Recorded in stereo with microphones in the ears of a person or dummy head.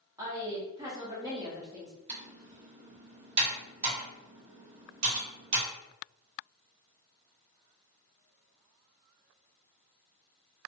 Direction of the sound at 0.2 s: 15° right (ahead or behind).